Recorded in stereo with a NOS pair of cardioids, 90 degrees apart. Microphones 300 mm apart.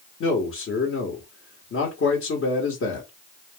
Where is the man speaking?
50° left, 1.2 m.